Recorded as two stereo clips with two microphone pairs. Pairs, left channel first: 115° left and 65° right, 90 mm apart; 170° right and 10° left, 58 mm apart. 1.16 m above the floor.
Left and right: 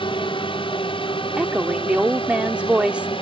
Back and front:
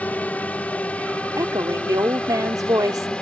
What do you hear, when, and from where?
0.0 s a drone: 125° left; by 3.2 s 115° left
1.4 s a woman speaking: 10° left